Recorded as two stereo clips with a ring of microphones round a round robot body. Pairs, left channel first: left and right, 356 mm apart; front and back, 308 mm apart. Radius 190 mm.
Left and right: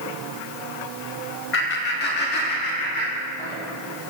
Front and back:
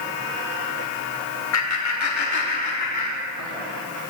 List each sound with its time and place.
1.5 s laughter: 35° left, 2 m; by 3.6 s 25° left, 4.5 m